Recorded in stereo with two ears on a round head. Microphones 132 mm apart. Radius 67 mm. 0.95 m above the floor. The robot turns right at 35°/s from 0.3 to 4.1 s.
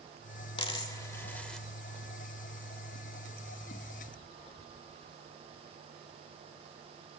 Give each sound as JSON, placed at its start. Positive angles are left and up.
{"t": 0.6, "sound": "a dropped coin", "side_deg": 40, "distance_m": 1.2}